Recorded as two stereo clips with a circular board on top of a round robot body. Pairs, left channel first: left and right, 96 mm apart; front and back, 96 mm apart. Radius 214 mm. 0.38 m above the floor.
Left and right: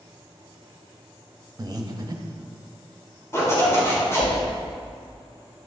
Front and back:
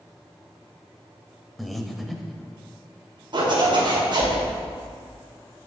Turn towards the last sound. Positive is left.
turn(degrees=150)